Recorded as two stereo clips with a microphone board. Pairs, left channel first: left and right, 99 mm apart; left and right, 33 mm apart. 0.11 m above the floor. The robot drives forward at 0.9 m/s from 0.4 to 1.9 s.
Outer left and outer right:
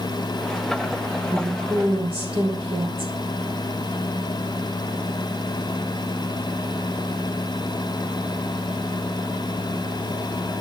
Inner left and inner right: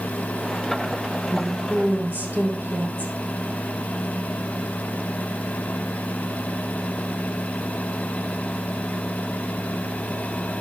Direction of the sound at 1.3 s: 70° right (ahead or behind).